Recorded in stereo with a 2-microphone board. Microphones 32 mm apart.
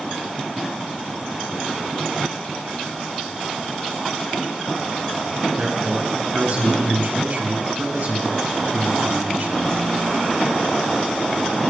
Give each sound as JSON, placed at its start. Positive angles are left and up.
{"t": 5.6, "sound": "a man speaking", "side_deg": -40, "distance_m": 9.5}